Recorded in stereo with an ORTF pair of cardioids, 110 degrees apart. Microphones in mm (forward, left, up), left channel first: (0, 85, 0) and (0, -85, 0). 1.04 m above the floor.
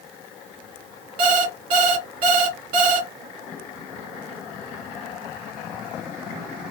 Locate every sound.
1.2 s an alarm clock: 60° right, 2.0 m